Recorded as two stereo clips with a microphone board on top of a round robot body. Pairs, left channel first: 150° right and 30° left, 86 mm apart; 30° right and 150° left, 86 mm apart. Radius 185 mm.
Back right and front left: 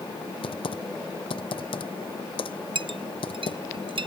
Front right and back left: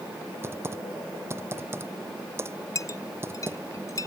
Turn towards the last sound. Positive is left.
turn(degrees=25)